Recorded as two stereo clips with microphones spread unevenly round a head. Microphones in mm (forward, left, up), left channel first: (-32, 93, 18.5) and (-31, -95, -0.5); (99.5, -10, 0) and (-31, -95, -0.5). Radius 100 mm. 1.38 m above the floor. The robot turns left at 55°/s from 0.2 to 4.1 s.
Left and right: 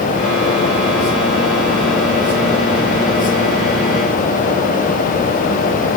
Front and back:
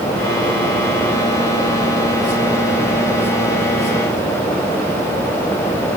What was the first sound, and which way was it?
Only background noise.